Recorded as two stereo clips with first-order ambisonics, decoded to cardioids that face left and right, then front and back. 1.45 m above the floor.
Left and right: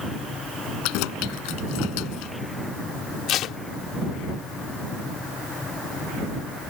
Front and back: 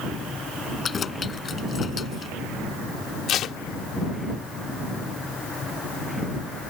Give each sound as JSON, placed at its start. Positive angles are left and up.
{"t": 0.8, "sound": "keys jangling", "azimuth_deg": 70}
{"t": 3.3, "sound": "tape being pulled", "azimuth_deg": 50}